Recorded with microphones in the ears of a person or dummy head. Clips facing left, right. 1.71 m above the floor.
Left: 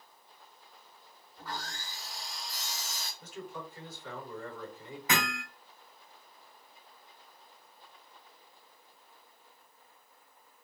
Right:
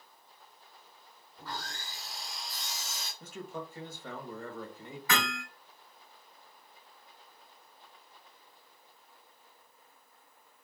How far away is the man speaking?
About 2 m.